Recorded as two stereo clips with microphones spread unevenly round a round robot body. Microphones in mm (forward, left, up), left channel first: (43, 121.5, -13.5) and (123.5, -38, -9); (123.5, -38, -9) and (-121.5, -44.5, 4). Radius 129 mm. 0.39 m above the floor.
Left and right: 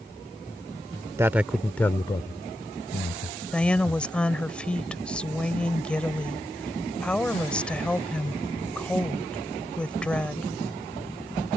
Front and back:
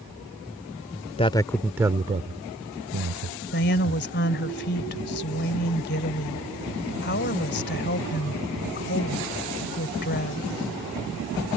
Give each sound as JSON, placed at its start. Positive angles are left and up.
{"t": 1.2, "sound": "a man speaking", "azimuth_deg": -5}
{"t": 3.5, "sound": "a woman speaking", "azimuth_deg": 35}